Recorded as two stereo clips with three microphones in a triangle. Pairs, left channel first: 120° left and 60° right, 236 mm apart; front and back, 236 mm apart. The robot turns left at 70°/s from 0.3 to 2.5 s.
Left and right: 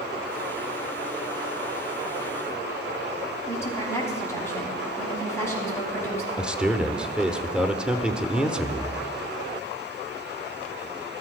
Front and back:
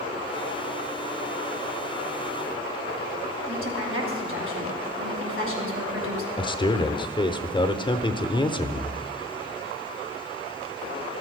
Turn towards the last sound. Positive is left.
turn(degrees=20)